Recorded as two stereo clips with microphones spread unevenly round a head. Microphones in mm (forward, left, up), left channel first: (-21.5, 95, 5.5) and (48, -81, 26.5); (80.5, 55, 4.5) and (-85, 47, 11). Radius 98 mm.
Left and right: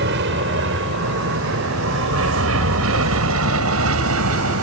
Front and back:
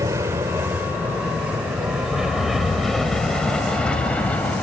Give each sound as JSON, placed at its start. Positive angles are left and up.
{"t": 0.0, "sound": "an aircraft", "azimuth_deg": -100}